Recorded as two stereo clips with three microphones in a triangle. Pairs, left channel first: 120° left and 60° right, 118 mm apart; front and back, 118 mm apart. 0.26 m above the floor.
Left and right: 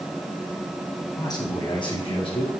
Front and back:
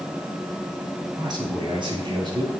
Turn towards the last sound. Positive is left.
turn(degrees=140)